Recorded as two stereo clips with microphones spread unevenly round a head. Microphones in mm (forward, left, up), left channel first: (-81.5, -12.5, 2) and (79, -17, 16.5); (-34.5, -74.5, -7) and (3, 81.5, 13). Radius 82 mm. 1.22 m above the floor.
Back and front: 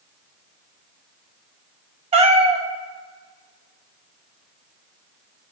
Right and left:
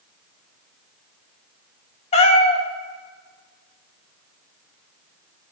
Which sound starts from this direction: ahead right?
A cat meowing, at 2.1 s.